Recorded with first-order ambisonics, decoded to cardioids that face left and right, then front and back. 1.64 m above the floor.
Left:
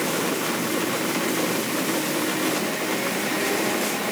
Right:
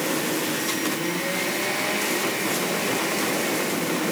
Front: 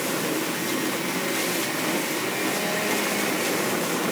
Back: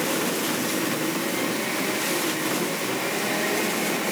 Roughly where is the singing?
I don't hear singing.